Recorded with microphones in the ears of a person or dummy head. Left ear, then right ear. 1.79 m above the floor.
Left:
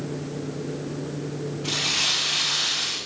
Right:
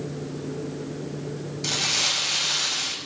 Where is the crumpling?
55° right (ahead or behind), 5 m.